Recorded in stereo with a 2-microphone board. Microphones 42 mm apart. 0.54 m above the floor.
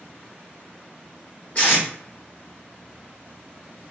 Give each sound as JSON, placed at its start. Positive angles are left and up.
{"t": 1.6, "sound": "tape being pulled", "side_deg": 35, "distance_m": 1.5}